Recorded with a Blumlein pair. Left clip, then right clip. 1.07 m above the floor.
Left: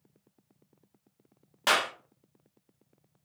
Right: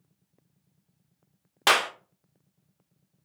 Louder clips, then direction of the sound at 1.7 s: Right 4 dB; 20° right.